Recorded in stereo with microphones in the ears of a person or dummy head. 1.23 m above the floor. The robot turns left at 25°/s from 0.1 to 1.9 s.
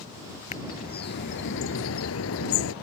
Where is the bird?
140° left; by 2.7 s 105° left.